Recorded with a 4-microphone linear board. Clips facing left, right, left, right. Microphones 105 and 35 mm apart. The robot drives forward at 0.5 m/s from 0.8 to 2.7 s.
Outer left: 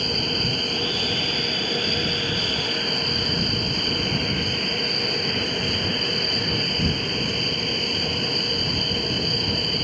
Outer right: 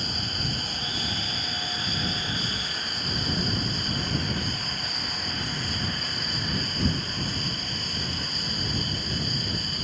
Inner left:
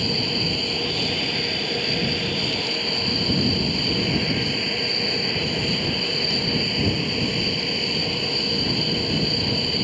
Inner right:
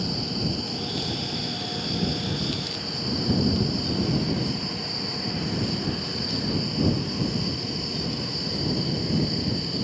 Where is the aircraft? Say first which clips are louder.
Outer left 7 dB, inner left 5 dB; 60° left (ahead or behind).